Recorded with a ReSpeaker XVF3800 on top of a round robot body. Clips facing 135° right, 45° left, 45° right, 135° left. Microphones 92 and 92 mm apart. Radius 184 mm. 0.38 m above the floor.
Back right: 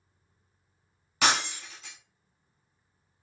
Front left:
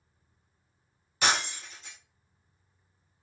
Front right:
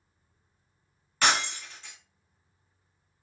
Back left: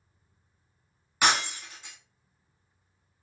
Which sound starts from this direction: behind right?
Breaking glass, at 1.2 s.